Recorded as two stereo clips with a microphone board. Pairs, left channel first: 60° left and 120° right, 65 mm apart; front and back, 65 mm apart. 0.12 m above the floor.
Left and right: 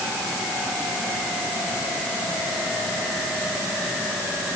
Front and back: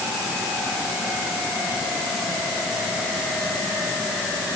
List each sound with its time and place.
Only background noise.